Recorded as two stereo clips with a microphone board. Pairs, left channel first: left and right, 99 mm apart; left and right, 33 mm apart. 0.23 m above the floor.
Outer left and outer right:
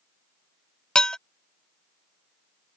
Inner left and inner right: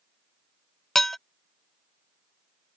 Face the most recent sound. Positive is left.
turn(degrees=5)  # may be behind; listen again after turning